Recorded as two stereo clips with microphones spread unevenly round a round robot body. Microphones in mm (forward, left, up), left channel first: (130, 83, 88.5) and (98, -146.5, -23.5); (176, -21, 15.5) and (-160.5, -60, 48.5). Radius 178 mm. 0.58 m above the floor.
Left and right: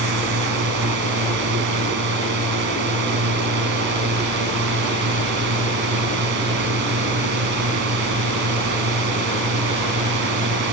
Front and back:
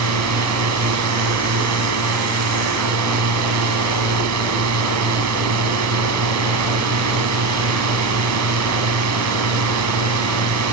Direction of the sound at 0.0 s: 130° right.